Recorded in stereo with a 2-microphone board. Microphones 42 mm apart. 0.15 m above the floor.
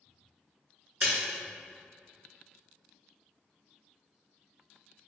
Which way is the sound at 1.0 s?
30° right (ahead or behind).